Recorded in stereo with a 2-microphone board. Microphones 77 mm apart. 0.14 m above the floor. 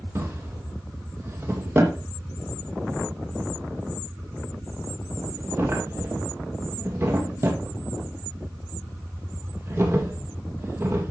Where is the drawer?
30° right (ahead or behind), 2.5 m.